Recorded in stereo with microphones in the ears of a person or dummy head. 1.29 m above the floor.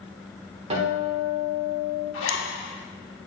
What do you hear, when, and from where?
0.7 s a guitar: 40° right (ahead or behind), 1.5 m
2.1 s a zipper: 70° left (ahead or behind), 1.5 m